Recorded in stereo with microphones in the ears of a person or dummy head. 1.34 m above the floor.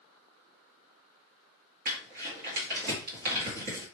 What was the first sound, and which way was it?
Crumpling, 40° right (ahead or behind).